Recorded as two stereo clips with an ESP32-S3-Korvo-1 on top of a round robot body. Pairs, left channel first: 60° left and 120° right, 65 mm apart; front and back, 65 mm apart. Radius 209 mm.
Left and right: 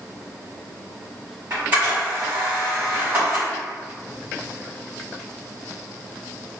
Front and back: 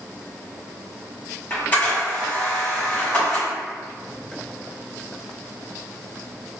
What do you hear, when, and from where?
1.5 s a camera shutter: 65° right, 1.7 m